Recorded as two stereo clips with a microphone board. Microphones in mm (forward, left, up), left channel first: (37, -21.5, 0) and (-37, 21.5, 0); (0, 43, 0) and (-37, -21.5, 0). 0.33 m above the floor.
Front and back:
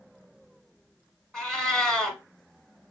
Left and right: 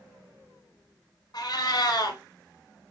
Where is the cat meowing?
55° left, 1.1 m.